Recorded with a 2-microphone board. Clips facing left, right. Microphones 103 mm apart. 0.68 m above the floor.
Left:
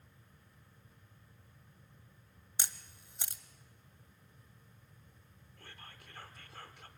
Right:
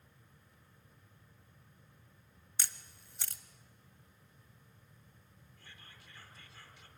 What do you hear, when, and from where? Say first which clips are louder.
2.6 s a camera shutter: left 1 dB; 20° left (ahead or behind), 1.1 m
5.6 s whispering: left 5 dB; 55° left (ahead or behind), 2 m